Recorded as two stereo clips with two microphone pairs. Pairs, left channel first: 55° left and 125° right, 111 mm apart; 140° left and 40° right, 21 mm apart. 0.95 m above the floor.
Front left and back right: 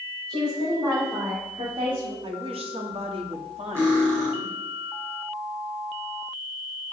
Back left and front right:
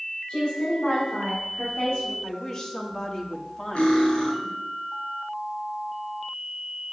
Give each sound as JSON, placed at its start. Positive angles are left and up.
{"t": 0.3, "sound": "a woman speaking", "azimuth_deg": 180, "distance_m": 4.0}
{"t": 2.2, "sound": "a woman speaking", "azimuth_deg": -155, "distance_m": 1.7}
{"t": 3.8, "sound": "cutlery clinking", "azimuth_deg": 165, "distance_m": 4.5}